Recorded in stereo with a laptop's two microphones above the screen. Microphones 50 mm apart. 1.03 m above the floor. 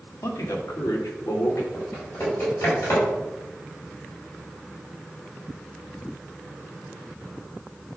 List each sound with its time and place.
0.2 s a man speaking: 80° left, 1.5 m; by 1.6 s 85° left, 2.5 m
1.7 s typing on a keyboard: 50° left (ahead or behind), 4 m